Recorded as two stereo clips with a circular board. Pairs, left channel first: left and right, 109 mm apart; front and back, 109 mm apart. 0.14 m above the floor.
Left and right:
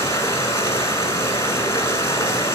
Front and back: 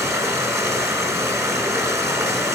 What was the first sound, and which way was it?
Running water, 135° left.